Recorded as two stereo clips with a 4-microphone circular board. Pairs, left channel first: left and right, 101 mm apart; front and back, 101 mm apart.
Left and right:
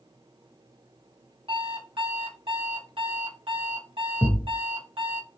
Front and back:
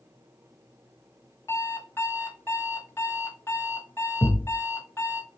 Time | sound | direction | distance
1.5 | an alarm clock | 65° right | 0.9 m
4.2 | a thud | 45° left | 1.1 m